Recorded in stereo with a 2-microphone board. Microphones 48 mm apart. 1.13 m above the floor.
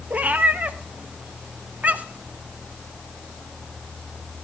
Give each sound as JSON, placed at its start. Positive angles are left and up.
{"t": 0.1, "sound": "a cat meowing", "side_deg": -30, "distance_m": 0.5}